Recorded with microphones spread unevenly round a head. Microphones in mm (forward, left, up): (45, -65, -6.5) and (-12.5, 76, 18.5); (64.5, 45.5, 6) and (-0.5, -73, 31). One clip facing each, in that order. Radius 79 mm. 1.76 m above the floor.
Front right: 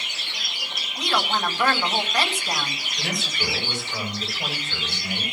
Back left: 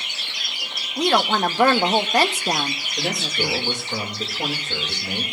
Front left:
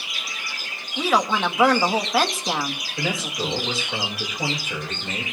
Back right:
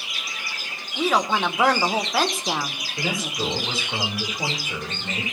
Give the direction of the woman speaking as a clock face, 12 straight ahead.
7 o'clock.